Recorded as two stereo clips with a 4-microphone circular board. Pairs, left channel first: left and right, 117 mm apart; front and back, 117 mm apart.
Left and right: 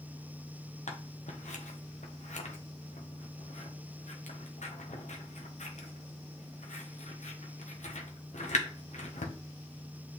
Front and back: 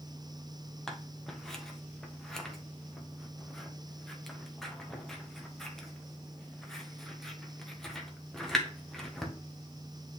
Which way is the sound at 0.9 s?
85° left.